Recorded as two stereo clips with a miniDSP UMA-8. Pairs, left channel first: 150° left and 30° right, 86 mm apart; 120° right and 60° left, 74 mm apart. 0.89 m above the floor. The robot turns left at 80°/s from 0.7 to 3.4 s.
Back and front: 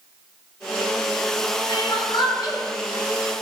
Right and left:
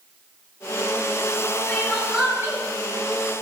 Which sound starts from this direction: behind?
Crying, at 1.7 s.